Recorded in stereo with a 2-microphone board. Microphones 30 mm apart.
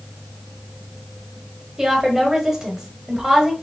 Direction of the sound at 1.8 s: 15° right (ahead or behind).